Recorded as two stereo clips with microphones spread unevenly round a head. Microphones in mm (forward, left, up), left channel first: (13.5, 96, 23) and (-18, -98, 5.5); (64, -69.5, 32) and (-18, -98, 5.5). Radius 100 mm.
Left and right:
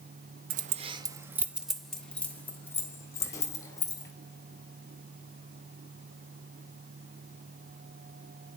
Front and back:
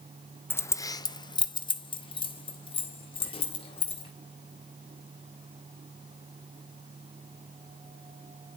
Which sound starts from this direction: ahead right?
Keys jangling, at 0.5 s.